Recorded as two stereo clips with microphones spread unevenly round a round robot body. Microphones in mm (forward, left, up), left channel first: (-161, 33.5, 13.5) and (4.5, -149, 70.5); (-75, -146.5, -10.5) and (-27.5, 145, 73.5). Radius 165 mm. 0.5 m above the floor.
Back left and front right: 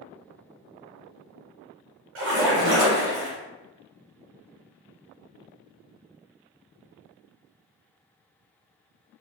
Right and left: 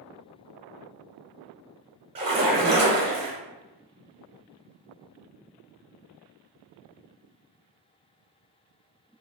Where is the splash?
5° left, 0.7 m.